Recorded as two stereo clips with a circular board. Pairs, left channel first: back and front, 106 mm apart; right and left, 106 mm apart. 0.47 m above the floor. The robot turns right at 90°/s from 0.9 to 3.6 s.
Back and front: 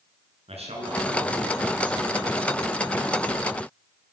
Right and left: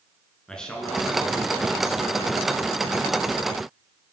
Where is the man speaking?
10° right, 7.5 m; by 2.5 s 135° left, 7.5 m.